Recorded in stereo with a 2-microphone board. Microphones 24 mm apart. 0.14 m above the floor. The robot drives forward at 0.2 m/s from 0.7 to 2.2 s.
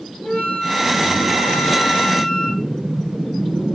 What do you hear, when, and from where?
0.2 s a flute: 55° left (ahead or behind), 1.1 m